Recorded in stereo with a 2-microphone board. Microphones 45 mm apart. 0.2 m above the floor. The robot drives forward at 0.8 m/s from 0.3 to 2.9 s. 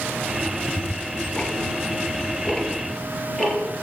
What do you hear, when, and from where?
0.6 s ticking: 30° left (ahead or behind), 0.5 m; by 3.7 s 10° left (ahead or behind), 1.8 m